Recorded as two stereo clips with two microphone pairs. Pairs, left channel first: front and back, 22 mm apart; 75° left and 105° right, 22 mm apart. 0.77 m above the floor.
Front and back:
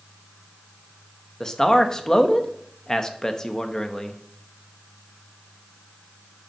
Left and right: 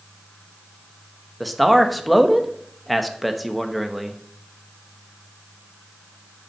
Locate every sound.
1.4 s a man speaking: 5° right, 0.8 m